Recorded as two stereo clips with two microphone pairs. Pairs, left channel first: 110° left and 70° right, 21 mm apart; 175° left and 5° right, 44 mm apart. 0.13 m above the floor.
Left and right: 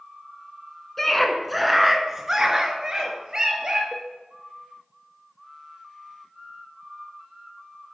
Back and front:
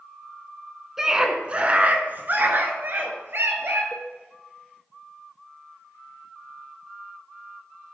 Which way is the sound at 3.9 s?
145° left.